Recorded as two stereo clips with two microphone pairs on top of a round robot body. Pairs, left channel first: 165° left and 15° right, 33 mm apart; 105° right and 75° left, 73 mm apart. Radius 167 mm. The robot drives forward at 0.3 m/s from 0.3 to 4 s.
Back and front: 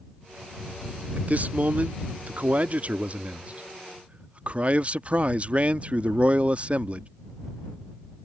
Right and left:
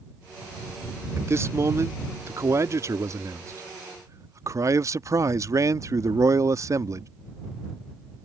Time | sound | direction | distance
1.2 | a man speaking | 20° left | ?